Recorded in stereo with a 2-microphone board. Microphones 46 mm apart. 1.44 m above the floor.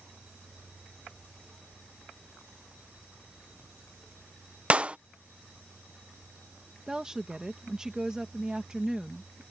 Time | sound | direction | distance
4.7 | a clap | 25° right (ahead or behind) | ?
6.9 | a woman speaking | 15° right (ahead or behind) | ?